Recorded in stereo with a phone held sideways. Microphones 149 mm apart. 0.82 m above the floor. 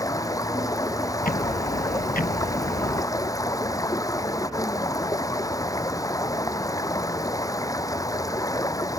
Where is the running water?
25° left (ahead or behind).